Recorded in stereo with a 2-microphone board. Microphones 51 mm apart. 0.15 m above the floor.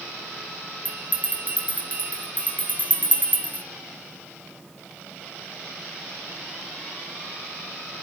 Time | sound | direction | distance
0.8 | a bell | 30° right (ahead or behind) | 0.9 m